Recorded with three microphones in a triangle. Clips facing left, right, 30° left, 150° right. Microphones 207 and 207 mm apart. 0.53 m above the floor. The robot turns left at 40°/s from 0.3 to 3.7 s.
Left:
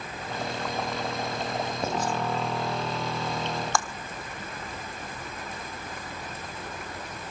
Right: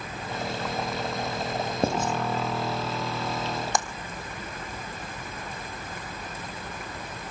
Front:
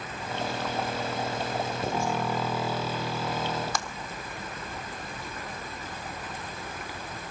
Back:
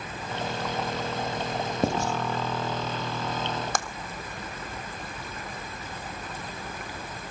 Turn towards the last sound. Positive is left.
turn(degrees=-155)